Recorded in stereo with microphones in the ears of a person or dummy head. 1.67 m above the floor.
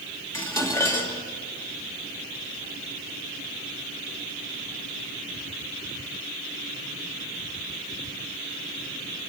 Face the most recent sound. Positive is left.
turn(degrees=15)  # may be behind; listen again after turning